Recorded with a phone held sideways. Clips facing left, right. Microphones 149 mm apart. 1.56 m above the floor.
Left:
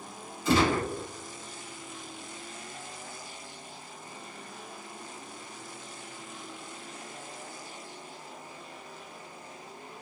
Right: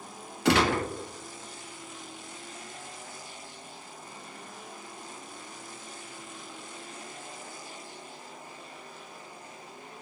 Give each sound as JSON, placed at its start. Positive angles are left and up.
{"t": 0.5, "sound": "a gunshot", "side_deg": -80, "distance_m": 0.5}